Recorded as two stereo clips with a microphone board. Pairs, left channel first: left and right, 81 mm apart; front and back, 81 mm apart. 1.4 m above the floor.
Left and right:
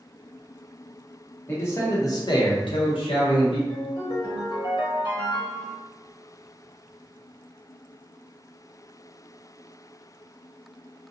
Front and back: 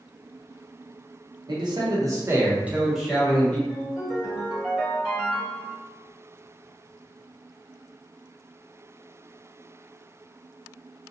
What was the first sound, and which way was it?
A man speaking, 155° left.